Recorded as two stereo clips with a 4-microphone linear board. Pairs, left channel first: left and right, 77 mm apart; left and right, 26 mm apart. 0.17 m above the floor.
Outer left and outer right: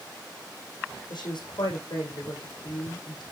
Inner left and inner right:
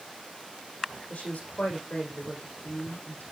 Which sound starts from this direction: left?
A woman speaking, at 1.1 s.